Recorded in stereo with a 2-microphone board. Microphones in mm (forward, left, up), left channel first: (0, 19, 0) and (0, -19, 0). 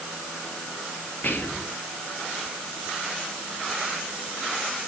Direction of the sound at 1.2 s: 50° left (ahead or behind).